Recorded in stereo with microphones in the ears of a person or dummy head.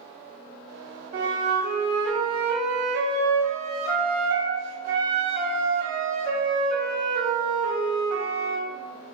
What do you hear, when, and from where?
1.1 s a flute: 45° right (ahead or behind), 0.5 m